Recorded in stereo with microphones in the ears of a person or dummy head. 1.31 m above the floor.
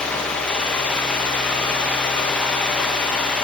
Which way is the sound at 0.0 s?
10° left (ahead or behind).